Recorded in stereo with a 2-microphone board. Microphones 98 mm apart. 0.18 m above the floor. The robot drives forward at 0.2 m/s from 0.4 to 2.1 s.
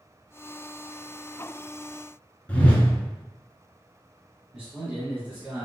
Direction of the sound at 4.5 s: 15° right (ahead or behind).